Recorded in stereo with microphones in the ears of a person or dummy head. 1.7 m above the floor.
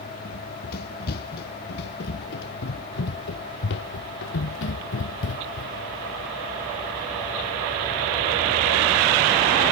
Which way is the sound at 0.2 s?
50° left (ahead or behind).